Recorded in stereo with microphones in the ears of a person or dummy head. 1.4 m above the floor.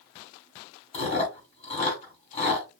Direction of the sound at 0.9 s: 30° left (ahead or behind).